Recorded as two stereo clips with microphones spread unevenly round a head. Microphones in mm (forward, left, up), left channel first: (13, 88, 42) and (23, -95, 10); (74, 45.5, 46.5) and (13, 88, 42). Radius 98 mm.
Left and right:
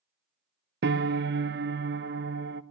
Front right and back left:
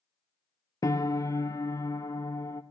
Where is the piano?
70° right, 0.7 m.